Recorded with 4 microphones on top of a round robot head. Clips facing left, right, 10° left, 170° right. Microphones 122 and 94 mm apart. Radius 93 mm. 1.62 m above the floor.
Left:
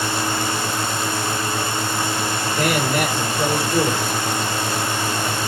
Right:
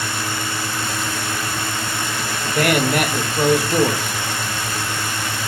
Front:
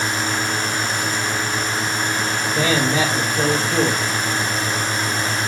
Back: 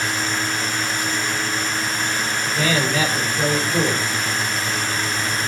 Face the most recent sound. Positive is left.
turn(degrees=-60)